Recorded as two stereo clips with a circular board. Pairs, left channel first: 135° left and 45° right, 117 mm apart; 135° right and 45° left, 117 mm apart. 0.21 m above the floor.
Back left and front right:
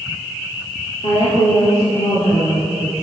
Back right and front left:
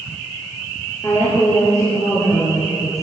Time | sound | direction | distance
1.0 | a woman speaking | 160° left | 3.5 m